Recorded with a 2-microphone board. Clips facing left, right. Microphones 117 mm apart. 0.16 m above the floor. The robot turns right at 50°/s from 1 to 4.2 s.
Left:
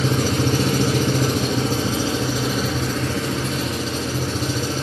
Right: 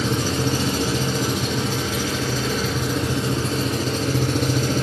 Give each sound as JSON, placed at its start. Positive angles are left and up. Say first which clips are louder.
{"t": 0.0, "sound": "an engine running", "louder": "left 2 dB", "azimuth_deg": 95, "distance_m": 1.0}